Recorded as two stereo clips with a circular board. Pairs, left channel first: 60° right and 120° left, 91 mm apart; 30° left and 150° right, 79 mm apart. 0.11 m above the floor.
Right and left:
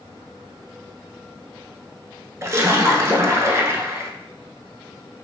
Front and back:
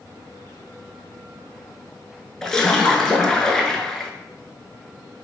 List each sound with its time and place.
2.4 s a splash: 105° left, 0.7 m